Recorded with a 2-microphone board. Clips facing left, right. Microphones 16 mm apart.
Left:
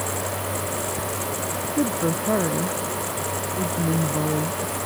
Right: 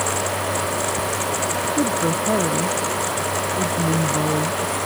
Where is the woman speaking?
5° right (ahead or behind); by 4.8 s 20° right (ahead or behind).